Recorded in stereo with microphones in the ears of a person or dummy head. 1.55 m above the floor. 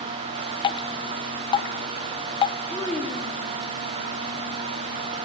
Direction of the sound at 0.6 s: 25° left (ahead or behind).